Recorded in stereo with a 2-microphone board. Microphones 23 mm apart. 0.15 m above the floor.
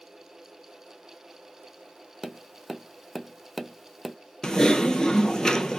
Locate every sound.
2.2 s tapping: 5° right (ahead or behind), 0.6 m
4.4 s typing on a keyboard: 35° left (ahead or behind), 0.5 m